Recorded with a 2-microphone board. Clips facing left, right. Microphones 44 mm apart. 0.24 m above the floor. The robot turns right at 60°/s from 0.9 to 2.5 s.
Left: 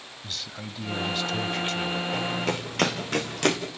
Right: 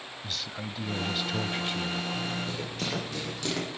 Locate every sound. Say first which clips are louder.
0.2 s a man speaking: even; 5° right (ahead or behind), 1.3 m; by 2.0 s 20° right (ahead or behind), 1.3 m
2.1 s running footsteps: left 5 dB; 90° left, 7.5 m; by 3.6 s 60° left (ahead or behind), 7 m